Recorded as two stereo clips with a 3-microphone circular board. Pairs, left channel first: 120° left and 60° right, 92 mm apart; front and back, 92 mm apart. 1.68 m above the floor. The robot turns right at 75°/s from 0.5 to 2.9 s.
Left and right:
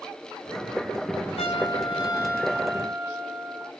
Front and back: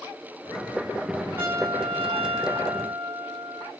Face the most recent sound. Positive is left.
turn(degrees=-135)